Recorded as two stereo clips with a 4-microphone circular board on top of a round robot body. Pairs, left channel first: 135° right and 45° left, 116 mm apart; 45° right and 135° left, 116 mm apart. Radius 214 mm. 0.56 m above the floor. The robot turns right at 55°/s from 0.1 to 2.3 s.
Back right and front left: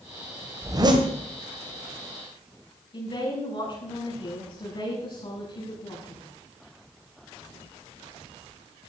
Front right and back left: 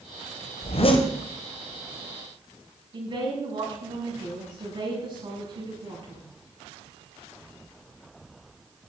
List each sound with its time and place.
0.6 s a zipper: 20° right, 1.9 m; by 1.1 s 5° left, 1.9 m
2.9 s a woman speaking: straight behind, 9 m